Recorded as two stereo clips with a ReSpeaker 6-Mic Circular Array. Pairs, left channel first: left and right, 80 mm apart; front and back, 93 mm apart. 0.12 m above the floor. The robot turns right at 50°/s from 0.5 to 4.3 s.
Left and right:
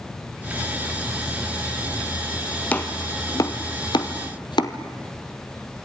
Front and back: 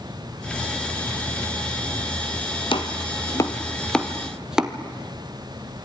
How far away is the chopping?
About 1.7 m.